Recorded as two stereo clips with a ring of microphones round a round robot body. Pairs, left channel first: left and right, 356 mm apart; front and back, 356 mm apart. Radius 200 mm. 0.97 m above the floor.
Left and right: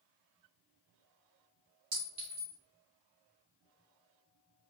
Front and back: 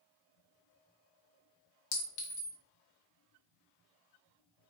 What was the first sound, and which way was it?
A clink, 15° right.